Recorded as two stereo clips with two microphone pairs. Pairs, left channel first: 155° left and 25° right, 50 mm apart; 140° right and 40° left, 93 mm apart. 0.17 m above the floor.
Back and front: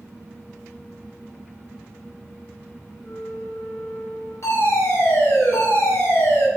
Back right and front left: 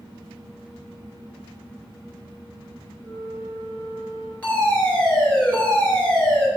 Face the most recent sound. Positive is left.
turn(degrees=145)